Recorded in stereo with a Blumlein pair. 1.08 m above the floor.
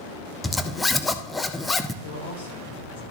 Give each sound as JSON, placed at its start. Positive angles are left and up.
{"t": 0.4, "sound": "a zipper", "azimuth_deg": 5, "distance_m": 0.6}
{"t": 2.0, "sound": "a man speaking", "azimuth_deg": 55, "distance_m": 3.5}